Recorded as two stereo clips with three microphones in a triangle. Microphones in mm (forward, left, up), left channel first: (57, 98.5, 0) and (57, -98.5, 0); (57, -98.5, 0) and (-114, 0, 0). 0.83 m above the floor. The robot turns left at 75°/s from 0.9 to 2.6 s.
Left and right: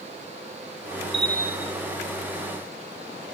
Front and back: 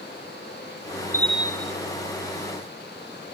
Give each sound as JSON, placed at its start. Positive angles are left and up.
{"t": 1.1, "sound": "a bell", "azimuth_deg": -105, "distance_m": 1.0}